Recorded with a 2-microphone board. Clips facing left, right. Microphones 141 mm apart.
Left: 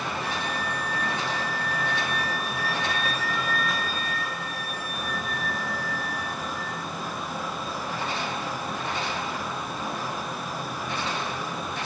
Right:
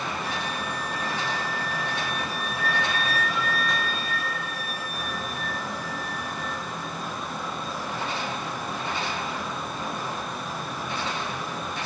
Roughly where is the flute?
Left.